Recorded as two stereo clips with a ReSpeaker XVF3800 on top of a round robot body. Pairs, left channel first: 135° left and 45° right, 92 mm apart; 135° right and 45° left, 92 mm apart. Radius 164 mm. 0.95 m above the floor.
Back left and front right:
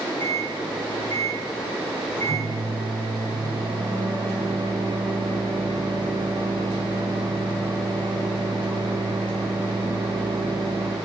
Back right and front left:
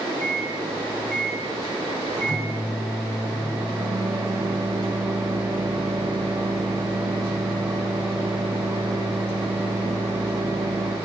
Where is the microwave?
10° right, 7 m.